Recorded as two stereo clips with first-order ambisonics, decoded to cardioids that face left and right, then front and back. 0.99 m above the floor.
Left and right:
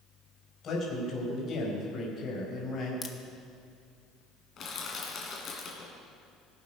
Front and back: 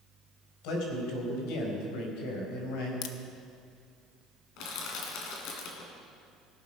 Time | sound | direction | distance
0.6 | a man speaking | 25° left | 4 m
3.0 | a crack | 15° left | 0.8 m
4.6 | crushing | 30° left | 2.5 m